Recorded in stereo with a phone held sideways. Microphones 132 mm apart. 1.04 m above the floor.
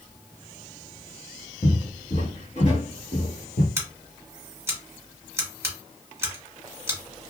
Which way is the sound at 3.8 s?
20° right (ahead or behind).